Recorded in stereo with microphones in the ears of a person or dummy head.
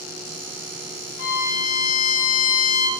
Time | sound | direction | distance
1.2 | a violin | 60° left (ahead or behind) | 1.1 m